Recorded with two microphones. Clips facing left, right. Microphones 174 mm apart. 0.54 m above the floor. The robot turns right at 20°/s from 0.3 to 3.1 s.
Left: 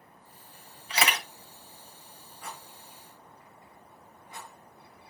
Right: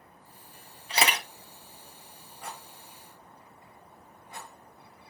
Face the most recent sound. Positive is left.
turn(degrees=-50)  # may be behind; listen again after turning